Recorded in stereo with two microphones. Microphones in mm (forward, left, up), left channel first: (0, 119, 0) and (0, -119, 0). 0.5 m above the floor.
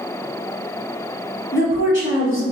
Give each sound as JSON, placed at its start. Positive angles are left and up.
{"t": 1.5, "sound": "a woman speaking", "side_deg": 45, "distance_m": 1.9}